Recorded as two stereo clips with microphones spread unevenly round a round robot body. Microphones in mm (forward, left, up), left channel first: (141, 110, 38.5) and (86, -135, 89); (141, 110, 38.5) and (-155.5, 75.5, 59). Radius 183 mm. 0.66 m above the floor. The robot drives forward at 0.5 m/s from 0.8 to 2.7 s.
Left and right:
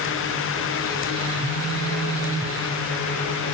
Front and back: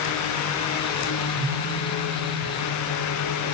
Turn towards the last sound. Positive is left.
turn(degrees=180)